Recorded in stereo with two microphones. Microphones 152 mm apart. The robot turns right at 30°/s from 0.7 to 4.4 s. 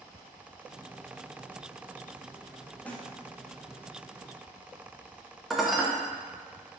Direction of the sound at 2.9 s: 10° left (ahead or behind).